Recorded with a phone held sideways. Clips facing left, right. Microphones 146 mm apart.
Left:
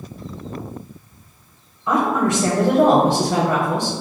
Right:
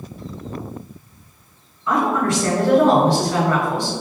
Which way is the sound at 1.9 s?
20° left (ahead or behind).